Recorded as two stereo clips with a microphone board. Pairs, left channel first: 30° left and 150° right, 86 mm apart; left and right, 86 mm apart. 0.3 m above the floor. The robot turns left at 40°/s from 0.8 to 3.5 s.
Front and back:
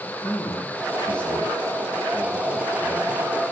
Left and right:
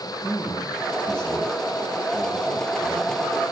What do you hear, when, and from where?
0.2 s a man speaking: 25° left, 4 m; by 3.2 s 70° right, 4 m